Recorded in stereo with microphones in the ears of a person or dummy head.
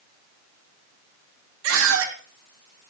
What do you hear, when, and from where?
1.6 s a scream: 75° right (ahead or behind), 3 m